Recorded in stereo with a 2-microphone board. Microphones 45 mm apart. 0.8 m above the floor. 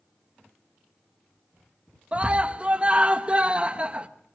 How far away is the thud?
I don't hear a thud.